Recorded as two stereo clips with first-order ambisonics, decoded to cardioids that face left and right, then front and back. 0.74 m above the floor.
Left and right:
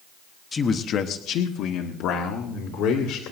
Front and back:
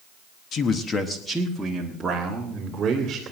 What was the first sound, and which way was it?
A man speaking, 25° left.